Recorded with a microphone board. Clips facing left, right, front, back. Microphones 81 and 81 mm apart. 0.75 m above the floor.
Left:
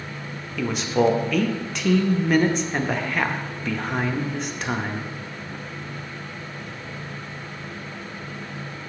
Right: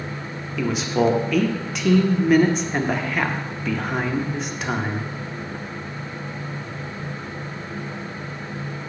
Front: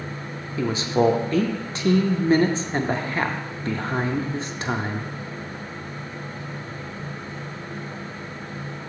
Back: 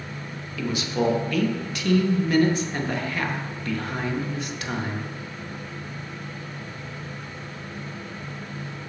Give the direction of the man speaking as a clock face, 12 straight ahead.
12 o'clock.